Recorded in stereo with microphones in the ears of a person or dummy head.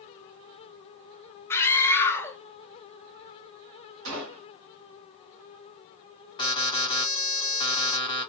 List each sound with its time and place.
1.5 s a scream: 15° left (ahead or behind), 0.8 m
4.0 s a gunshot: 55° right (ahead or behind), 1.3 m
6.4 s an alarm: 20° left (ahead or behind), 1.0 m